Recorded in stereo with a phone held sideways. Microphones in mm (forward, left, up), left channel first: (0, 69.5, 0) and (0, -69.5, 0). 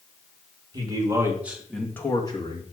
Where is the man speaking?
30° right (ahead or behind), 2 m; by 2.6 s 40° left (ahead or behind), 1.8 m.